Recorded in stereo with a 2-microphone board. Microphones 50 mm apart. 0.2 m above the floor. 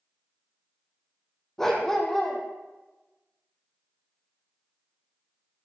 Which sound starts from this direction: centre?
A dog barking, at 1.6 s.